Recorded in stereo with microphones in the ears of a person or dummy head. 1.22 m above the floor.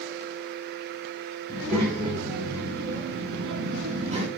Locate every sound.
1.5 s a child speaking: 30° right (ahead or behind), 2.5 m; by 4.3 s 35° right (ahead or behind), 1.1 m